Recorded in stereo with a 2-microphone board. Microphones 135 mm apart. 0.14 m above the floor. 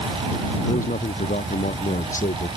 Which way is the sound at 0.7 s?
75° left (ahead or behind).